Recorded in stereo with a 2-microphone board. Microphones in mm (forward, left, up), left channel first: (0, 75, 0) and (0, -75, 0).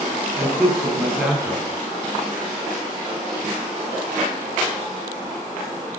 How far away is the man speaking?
About 5 m.